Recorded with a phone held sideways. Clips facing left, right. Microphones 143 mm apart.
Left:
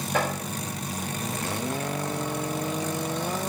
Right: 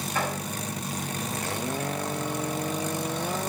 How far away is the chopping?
About 5 m.